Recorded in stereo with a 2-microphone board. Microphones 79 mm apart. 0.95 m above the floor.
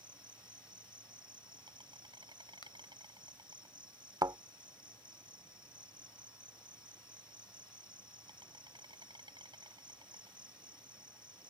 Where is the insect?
75° right (ahead or behind).